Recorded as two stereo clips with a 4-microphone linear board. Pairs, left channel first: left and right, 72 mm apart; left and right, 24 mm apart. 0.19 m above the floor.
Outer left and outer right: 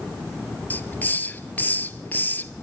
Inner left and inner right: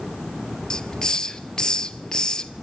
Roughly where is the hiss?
Left.